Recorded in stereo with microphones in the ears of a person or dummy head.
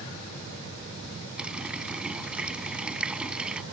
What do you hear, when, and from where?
1.4 s a running tap: 5° right (ahead or behind)